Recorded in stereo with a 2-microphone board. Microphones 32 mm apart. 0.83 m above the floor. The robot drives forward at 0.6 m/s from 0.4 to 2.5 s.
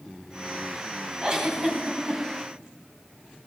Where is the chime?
No chime in this recording.